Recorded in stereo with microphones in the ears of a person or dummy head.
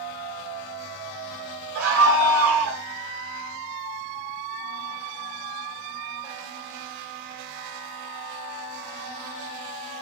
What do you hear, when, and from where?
1.8 s a scream: 80° right, 5.5 m